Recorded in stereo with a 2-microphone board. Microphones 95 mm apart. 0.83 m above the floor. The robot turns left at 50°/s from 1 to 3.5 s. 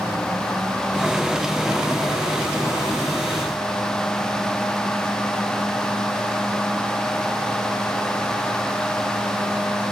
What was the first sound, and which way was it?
Only background noise.